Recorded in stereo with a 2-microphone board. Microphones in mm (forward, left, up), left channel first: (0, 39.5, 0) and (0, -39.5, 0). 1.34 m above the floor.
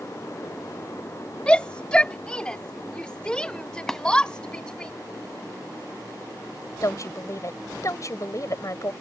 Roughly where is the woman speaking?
Left.